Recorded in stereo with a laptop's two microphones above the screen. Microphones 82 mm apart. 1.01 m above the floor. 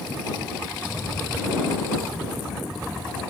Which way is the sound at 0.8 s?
5° right (ahead or behind).